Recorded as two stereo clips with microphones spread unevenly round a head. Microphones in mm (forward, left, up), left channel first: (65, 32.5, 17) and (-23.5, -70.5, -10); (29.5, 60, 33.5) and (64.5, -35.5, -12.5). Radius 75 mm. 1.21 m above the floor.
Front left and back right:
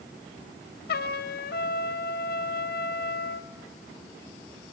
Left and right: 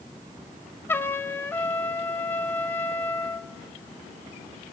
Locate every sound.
0.9 s a trumpet: 40° left, 1.0 m